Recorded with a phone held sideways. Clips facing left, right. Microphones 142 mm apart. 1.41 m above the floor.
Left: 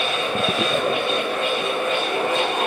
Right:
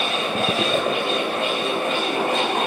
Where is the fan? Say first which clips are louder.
Even; 85° right, 6.5 m.